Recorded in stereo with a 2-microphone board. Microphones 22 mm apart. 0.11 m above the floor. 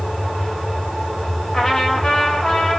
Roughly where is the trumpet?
Centre.